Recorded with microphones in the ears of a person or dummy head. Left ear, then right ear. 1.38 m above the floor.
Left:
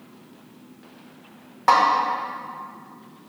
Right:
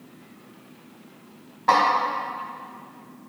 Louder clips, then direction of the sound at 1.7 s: Left 2 dB; 35° left (ahead or behind).